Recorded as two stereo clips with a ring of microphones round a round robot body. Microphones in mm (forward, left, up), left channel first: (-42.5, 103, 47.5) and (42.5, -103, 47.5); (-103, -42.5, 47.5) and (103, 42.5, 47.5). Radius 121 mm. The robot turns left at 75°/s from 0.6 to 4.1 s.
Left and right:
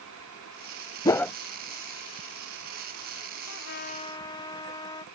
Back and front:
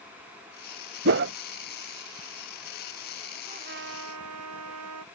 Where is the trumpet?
85° left; by 5.0 s 40° left.